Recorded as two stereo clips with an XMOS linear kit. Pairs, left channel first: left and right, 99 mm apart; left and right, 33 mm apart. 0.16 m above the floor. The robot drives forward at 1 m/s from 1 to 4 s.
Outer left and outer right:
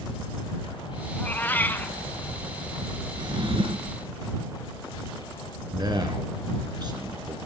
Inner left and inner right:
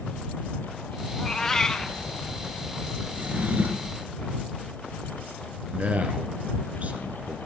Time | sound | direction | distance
1.1 | a cat meowing | 15° left (ahead or behind) | 0.8 m
3.1 | a drawer | 50° right (ahead or behind) | 1.5 m
5.7 | a man speaking | 45° right (ahead or behind) | 2.5 m